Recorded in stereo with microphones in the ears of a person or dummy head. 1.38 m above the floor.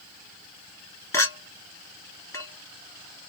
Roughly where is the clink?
Centre.